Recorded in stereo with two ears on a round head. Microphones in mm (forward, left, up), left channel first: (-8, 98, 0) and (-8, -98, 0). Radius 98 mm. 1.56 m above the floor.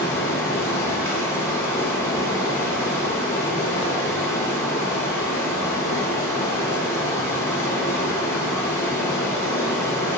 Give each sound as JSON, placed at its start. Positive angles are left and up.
{"t": 0.0, "sound": "running water", "side_deg": 15, "distance_m": 0.9}